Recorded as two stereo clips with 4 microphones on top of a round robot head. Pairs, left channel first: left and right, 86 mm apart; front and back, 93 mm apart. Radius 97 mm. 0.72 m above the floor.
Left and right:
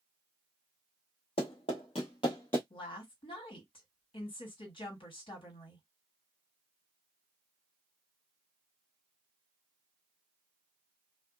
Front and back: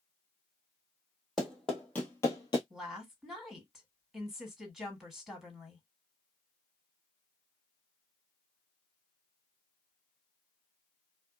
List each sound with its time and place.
1.4 s running footsteps: 85° left, 1.2 m; by 2.6 s 10° left, 0.8 m
2.7 s a woman speaking: 95° left, 1.6 m